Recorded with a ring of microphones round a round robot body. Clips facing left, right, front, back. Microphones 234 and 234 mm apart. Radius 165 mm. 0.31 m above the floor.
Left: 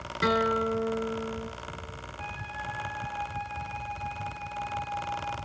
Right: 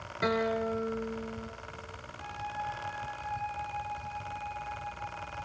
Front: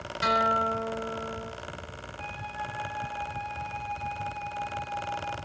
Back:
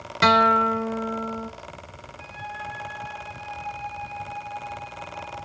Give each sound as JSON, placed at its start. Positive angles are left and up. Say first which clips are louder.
{"t": 0.2, "sound": "a guitar", "louder": "left 3 dB, back 8 dB", "azimuth_deg": 160, "distance_m": 0.9}
{"t": 2.2, "sound": "a flute", "louder": "even, back 2 dB", "azimuth_deg": 110, "distance_m": 6.0}